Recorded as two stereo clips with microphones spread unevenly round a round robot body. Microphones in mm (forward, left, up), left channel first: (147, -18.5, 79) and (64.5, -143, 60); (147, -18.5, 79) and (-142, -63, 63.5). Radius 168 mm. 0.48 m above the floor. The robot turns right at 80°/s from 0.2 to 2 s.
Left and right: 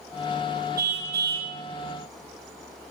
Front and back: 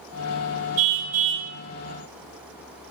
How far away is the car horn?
About 3 m.